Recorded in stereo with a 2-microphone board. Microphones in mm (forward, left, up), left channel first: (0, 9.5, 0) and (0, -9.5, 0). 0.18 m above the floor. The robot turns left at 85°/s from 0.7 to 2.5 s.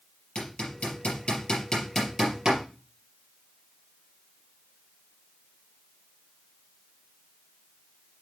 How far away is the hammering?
About 4.5 m.